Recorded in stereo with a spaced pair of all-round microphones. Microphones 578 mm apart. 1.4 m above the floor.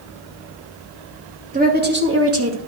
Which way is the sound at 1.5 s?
15° right (ahead or behind).